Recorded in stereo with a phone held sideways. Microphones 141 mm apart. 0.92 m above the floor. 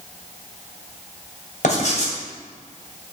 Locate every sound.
1.6 s writing: 60° left (ahead or behind), 2 m